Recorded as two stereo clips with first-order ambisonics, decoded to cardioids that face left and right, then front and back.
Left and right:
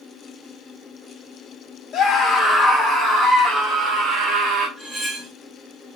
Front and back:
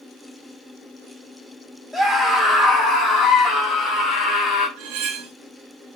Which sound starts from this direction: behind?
Cutlery clinking, at 4.8 s.